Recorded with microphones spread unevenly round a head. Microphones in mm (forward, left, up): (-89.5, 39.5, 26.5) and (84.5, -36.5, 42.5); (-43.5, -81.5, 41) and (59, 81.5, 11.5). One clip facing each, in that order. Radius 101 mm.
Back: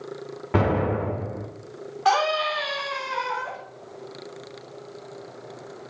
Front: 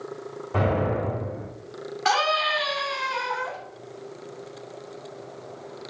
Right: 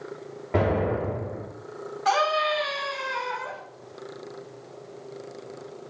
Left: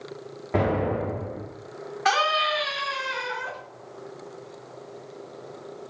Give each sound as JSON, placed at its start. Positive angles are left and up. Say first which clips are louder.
{"t": 0.5, "sound": "an explosion", "louder": "back 2 dB, even", "azimuth_deg": 150, "distance_m": 1.8}
{"t": 2.0, "sound": "a scream", "louder": "back 3 dB, right 2 dB", "azimuth_deg": 45, "distance_m": 4.0}